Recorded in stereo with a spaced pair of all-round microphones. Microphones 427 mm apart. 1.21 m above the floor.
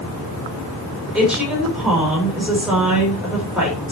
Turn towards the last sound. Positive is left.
turn(degrees=0)  # may be behind; listen again after turning